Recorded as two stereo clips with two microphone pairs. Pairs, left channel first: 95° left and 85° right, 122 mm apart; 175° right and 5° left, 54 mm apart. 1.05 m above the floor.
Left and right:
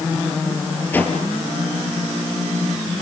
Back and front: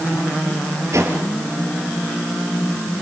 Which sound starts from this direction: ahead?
A whoosh, at 0.9 s.